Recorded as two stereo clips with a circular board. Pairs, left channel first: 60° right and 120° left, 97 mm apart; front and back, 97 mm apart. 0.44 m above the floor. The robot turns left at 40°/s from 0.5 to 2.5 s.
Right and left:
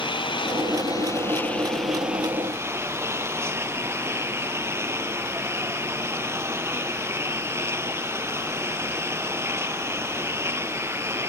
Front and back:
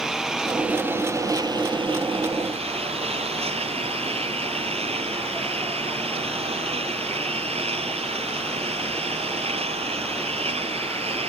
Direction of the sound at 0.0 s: 95° right.